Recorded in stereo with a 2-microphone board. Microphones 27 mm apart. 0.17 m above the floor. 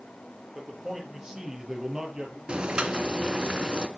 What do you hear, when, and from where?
0.6 s a man speaking: 20° right (ahead or behind), 4.5 m; by 2.4 s 30° right (ahead or behind), 3.5 m
2.5 s boiling: 40° right (ahead or behind), 1.5 m